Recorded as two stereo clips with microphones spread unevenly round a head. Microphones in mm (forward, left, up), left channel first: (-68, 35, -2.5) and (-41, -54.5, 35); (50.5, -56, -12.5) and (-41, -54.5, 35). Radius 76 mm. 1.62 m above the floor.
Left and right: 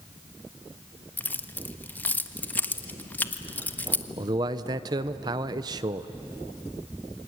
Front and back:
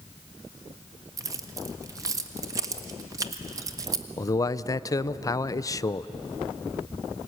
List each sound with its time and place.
1.2 s keys jangling: 170° right, 1.4 m
4.2 s a man speaking: 70° right, 0.7 m